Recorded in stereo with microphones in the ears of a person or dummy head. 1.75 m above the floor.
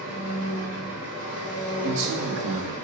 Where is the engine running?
40° left (ahead or behind), 1.9 m.